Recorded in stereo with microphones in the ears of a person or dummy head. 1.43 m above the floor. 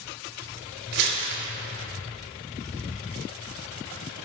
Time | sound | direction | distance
0.9 | crumpling | 70° right (ahead or behind) | 3.5 m